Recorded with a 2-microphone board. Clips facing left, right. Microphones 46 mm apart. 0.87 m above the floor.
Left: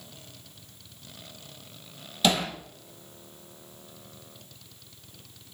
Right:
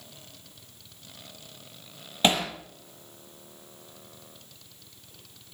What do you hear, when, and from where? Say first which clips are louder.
2.2 s hammering: right 1 dB; 35° right (ahead or behind), 6 m